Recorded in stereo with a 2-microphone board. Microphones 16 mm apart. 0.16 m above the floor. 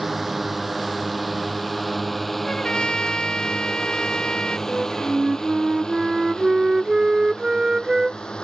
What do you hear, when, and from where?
0.0 s a drone: 15° right (ahead or behind); by 8.4 s 65° left (ahead or behind)
2.4 s a trumpet: 65° left (ahead or behind)
4.7 s a flute: 45° right (ahead or behind)